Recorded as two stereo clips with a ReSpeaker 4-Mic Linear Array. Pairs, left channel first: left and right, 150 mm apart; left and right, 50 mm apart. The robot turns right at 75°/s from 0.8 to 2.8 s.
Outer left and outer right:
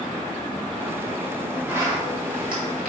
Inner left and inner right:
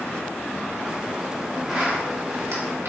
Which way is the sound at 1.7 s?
15° right (ahead or behind).